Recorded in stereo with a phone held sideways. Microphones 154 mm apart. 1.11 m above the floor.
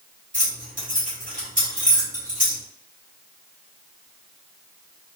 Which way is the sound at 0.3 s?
60° right (ahead or behind).